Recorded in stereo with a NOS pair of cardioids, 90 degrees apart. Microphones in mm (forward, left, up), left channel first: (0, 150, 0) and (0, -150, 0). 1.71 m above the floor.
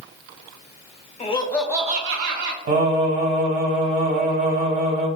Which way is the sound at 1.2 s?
20° left.